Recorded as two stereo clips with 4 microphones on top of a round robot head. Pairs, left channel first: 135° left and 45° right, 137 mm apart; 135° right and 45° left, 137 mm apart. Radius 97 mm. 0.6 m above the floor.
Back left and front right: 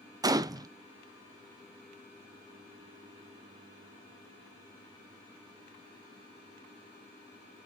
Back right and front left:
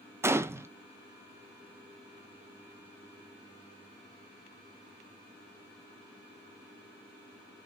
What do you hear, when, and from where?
0.2 s a gunshot: 10° right, 0.5 m